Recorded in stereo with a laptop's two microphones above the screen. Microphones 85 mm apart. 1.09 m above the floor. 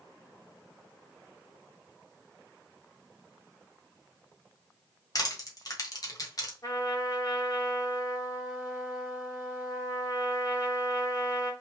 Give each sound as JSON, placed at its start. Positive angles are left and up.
{"t": 5.2, "sound": "crushing", "side_deg": 45, "distance_m": 1.4}
{"t": 6.6, "sound": "a trumpet", "side_deg": 40, "distance_m": 1.9}